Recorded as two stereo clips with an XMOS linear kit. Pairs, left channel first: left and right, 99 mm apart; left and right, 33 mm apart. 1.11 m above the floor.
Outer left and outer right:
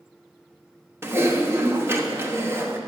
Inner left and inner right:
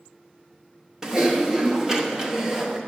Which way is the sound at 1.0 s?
20° right (ahead or behind).